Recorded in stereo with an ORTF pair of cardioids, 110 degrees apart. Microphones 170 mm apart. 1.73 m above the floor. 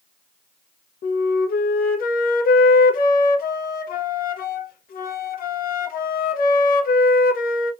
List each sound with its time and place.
1.0 s a flute: 60° left, 0.8 m